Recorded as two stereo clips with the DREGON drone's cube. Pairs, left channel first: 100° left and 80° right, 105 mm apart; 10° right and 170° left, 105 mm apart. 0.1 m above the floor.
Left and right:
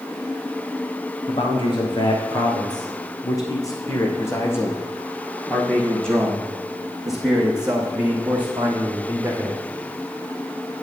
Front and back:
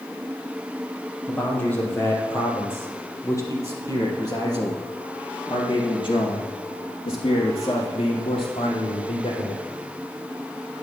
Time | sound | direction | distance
1.3 | a man speaking | 65° left | 4 m